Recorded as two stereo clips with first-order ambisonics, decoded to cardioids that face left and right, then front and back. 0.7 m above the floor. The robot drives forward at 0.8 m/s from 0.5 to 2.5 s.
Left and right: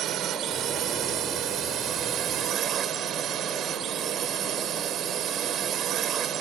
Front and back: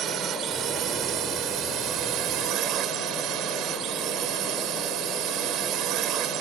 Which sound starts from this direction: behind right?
A drone, at 0.0 s.